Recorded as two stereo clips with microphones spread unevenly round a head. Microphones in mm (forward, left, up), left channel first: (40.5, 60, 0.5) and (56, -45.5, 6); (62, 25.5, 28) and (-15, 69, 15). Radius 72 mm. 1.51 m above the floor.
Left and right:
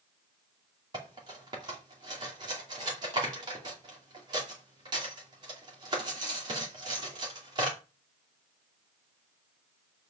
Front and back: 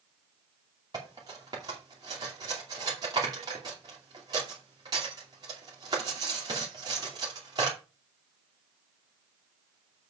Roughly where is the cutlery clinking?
Behind right.